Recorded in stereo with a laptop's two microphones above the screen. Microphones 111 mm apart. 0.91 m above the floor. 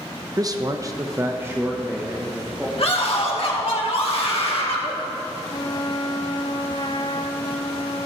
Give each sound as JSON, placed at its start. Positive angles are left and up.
{"t": 0.4, "sound": "a man speaking", "side_deg": -30, "distance_m": 0.6}
{"t": 2.8, "sound": "a scream", "side_deg": 60, "distance_m": 2.0}
{"t": 5.5, "sound": "a trumpet", "side_deg": 45, "distance_m": 0.6}